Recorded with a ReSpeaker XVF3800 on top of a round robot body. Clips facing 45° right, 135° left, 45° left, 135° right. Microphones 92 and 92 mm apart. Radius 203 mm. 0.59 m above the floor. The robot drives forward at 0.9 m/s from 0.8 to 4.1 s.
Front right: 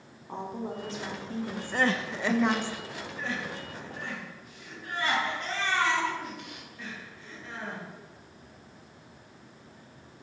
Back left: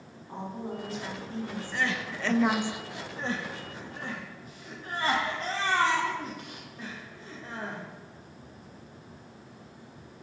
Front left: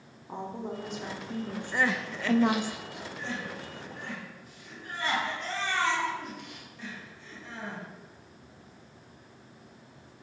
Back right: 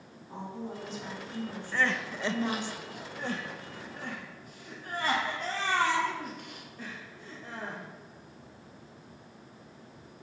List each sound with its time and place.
0.3 s a woman speaking: 15° left, 2 m; by 2.7 s 70° left, 0.9 m
1.7 s crying: 25° right, 0.8 m; by 7.8 s 175° right, 1.8 m